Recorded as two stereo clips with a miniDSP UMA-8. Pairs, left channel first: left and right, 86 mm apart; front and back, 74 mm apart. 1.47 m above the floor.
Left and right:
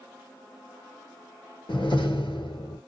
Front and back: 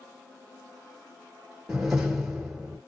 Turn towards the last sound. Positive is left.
turn(degrees=100)